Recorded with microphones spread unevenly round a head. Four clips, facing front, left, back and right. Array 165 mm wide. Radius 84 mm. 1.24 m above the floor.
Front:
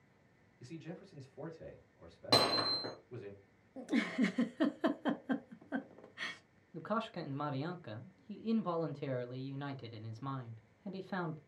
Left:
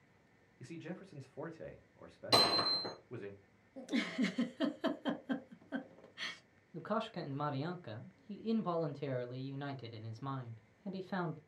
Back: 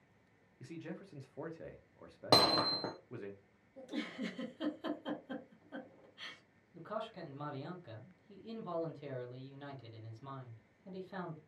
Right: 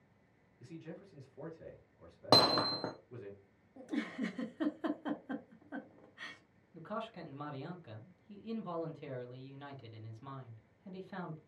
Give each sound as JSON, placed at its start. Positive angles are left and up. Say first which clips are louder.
{"t": 0.6, "sound": "a man speaking", "louder": "left 2 dB, back 1 dB", "azimuth_deg": 140, "distance_m": 0.9}
{"t": 2.3, "sound": "hammering", "louder": "right 4 dB, back 2 dB", "azimuth_deg": -120, "distance_m": 0.5}
{"t": 3.8, "sound": "a giggle", "louder": "left 2 dB, front 8 dB", "azimuth_deg": 15, "distance_m": 0.6}
{"t": 6.7, "sound": "a man speaking", "louder": "left 4 dB, front 5 dB", "azimuth_deg": 45, "distance_m": 0.6}